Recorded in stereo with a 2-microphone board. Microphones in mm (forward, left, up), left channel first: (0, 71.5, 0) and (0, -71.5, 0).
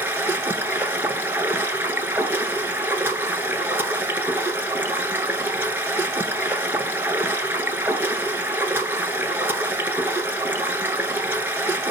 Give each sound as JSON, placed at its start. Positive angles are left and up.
{"t": 0.0, "sound": "running water", "side_deg": -15, "distance_m": 0.9}